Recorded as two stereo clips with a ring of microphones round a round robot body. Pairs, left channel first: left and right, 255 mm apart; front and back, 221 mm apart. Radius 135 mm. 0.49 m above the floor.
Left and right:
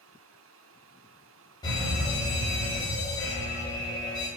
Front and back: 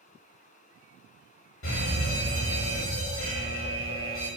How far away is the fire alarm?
About 5 m.